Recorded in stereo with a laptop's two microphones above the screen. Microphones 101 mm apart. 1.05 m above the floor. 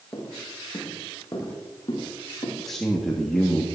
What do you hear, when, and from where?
0.1 s footsteps: 20° left (ahead or behind), 5 m; by 2.5 s 40° left (ahead or behind), 6.5 m
2.6 s a man speaking: 5° left (ahead or behind), 1.9 m